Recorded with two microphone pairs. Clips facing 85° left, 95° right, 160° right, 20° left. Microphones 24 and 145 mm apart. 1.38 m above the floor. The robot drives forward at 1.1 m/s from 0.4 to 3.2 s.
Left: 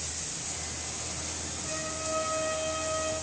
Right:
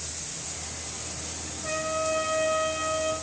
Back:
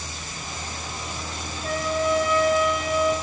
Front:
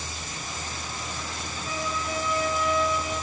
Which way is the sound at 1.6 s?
145° right.